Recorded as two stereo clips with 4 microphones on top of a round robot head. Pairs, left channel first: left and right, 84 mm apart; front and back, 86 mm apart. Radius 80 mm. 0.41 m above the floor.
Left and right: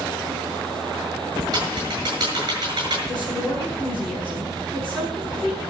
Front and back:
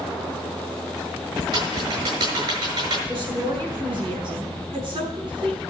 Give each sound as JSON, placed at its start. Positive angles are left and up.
{"t": 1.5, "sound": "typing on a keyboard", "azimuth_deg": -140, "distance_m": 7.5}
{"t": 3.1, "sound": "a woman speaking", "azimuth_deg": 165, "distance_m": 6.0}